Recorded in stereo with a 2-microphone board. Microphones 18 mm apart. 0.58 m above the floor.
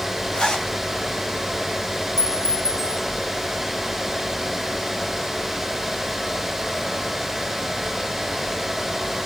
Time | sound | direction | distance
0.3 | a zipper | 55° left (ahead or behind) | 3 m
2.2 | a clink | 25° left (ahead or behind) | 3.5 m